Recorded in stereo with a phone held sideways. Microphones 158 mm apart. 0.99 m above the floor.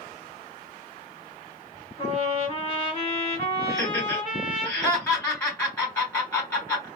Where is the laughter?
20° left (ahead or behind), 3 m.